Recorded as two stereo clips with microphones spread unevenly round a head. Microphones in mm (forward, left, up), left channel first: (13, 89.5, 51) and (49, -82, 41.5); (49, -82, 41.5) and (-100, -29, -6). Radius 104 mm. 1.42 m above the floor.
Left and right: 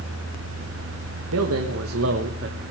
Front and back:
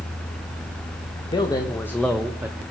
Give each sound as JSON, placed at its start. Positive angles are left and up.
{"t": 1.3, "sound": "a man speaking", "azimuth_deg": -85, "distance_m": 1.7}